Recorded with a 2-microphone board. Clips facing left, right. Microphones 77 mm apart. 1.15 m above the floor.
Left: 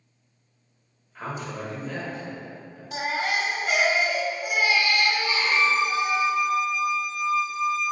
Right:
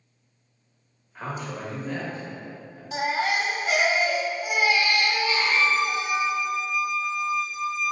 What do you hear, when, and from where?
1.1 s a man speaking: 10° right (ahead or behind), 1.2 m
2.9 s a baby crying: 5° right (ahead or behind), 0.9 m
5.2 s a violin: 15° left (ahead or behind), 1.2 m